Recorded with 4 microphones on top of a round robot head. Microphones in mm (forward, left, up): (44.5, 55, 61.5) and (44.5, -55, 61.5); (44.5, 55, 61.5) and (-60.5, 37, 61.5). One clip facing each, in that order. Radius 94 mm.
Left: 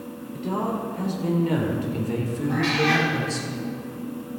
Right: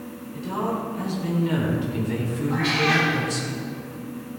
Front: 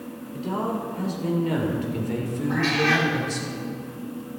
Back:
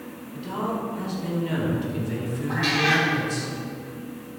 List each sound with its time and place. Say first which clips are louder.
0.3 s a man speaking: even, front 1 dB; 55° left, 3.5 m; by 3.5 s 30° left, 3 m
2.5 s a cat meowing: left 1 dB, front 1 dB; 115° left, 5 m